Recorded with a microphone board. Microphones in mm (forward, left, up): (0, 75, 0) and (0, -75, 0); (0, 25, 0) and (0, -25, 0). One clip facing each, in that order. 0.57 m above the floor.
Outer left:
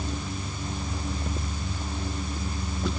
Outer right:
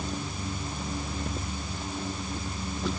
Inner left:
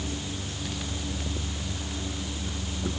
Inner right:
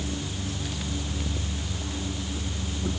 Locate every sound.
Only background noise.